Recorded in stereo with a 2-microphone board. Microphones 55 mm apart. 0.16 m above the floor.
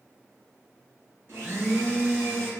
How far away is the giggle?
No giggle in this recording.